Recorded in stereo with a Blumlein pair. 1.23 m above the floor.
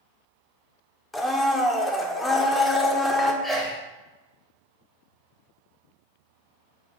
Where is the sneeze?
5° left, 0.7 m.